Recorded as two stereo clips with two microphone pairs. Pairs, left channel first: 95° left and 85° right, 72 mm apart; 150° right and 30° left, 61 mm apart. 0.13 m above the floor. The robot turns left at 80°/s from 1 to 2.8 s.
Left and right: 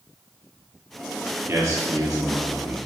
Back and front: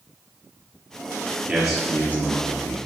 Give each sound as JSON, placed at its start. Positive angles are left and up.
{"t": 1.5, "sound": "a man speaking", "azimuth_deg": -45, "distance_m": 3.0}